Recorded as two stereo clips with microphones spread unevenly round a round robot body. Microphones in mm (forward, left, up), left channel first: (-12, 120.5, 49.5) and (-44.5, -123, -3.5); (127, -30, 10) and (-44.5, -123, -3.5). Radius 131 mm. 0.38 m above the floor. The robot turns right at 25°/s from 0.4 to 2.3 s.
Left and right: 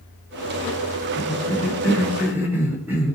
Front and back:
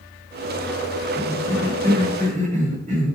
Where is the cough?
175° left, 1.3 m; by 3.2 s 160° right, 1.3 m.